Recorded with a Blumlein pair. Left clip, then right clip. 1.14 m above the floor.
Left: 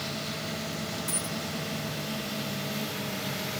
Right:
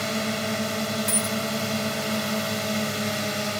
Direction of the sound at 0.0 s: 60° right.